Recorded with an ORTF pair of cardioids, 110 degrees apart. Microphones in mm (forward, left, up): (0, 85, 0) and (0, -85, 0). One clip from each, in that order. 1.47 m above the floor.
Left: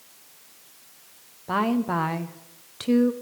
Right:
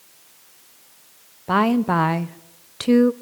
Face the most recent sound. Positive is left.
turn(degrees=-30)